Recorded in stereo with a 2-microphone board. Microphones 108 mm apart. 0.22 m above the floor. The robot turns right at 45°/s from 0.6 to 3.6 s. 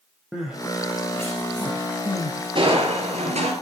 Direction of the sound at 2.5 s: 125° right.